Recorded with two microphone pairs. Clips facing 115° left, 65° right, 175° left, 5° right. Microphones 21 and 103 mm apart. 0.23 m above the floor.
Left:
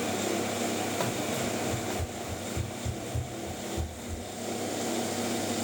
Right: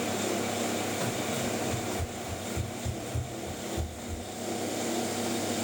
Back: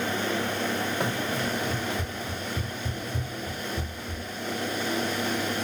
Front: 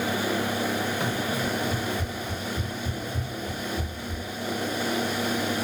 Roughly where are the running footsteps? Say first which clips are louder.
Left 1 dB, front 1 dB; behind left.